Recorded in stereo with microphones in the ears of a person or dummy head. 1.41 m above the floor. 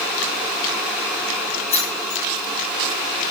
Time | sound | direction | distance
1.7 | keys jangling | 40° left (ahead or behind) | 6 m